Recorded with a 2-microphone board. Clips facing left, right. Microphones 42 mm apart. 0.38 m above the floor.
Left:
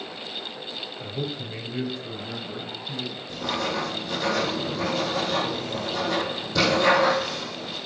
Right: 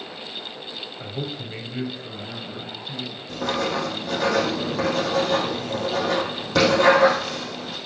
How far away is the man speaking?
About 1.8 m.